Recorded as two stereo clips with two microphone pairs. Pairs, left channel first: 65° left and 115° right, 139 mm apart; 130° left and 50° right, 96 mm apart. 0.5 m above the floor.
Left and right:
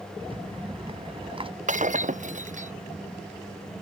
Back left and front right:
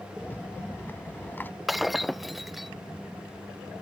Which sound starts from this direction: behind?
A rattle, at 0.2 s.